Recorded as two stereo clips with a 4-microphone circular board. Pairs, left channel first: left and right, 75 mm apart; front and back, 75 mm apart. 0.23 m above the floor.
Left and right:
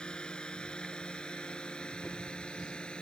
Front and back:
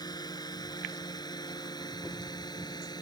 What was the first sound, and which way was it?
A drone, 15° left.